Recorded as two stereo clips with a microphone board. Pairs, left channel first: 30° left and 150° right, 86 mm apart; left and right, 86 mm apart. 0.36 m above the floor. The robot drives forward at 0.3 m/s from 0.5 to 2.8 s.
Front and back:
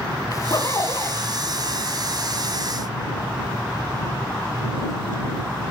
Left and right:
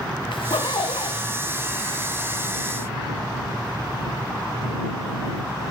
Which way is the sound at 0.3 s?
75° left.